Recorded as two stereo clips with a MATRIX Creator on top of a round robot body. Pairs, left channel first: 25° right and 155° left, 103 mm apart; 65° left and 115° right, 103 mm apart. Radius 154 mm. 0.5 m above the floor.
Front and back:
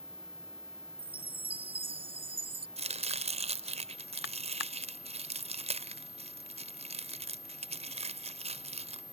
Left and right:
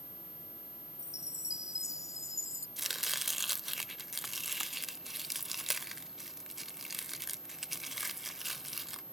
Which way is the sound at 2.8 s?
160° left.